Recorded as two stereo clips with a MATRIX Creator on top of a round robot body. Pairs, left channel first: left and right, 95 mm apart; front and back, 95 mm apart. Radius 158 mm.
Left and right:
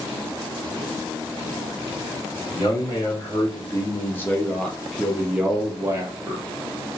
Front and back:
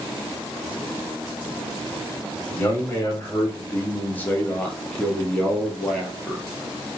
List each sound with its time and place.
2.5 s a man speaking: 60° left, 1.7 m; by 6.4 s 100° right, 1.2 m